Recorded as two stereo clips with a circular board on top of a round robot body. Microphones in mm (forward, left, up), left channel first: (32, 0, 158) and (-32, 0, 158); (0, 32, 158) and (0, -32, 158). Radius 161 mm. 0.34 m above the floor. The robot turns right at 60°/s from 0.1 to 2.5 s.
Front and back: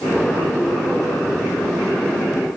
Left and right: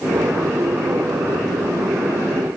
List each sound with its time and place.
Only background noise.